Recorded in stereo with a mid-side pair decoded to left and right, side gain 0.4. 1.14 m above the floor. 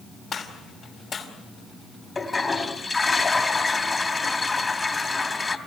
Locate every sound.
0.3 s a gunshot: 55° left, 4.5 m
2.1 s a toilet flushing: 30° left, 3 m